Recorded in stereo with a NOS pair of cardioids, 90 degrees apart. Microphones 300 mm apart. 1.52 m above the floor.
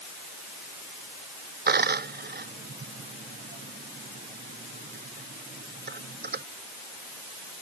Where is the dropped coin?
35° right.